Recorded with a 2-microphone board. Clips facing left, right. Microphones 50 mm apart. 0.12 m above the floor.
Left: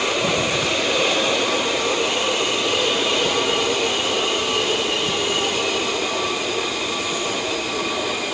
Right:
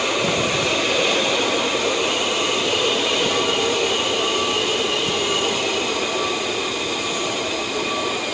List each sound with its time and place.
Only background noise.